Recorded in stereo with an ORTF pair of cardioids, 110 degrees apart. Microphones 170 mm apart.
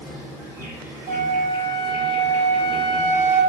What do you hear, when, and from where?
0.0 s an insect: 15° right, 1.5 m
1.1 s a flute: 55° right, 1.0 m